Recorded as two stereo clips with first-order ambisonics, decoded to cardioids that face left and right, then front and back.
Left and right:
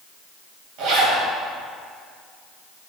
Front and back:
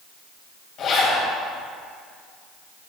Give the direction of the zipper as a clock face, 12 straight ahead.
2 o'clock.